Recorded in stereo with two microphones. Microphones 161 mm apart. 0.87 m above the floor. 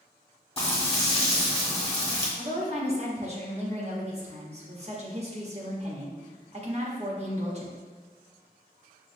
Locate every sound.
0.6 s frying: 35° left (ahead or behind), 1.2 m
2.4 s a woman speaking: 40° right (ahead or behind), 1.2 m